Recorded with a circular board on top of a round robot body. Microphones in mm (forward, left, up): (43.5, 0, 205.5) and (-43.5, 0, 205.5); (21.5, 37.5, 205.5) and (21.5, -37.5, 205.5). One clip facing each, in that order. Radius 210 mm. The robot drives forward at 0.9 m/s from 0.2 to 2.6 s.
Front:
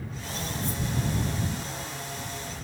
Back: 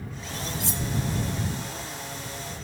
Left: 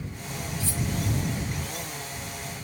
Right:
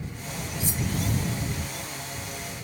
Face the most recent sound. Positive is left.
turn(degrees=-165)